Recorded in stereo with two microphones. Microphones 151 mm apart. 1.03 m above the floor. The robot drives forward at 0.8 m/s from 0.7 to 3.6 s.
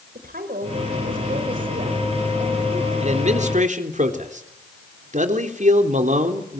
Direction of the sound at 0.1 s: 75° right (ahead or behind).